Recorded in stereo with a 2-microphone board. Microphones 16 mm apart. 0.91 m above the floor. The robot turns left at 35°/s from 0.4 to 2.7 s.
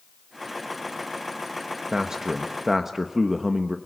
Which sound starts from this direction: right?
A man speaking, at 1.9 s.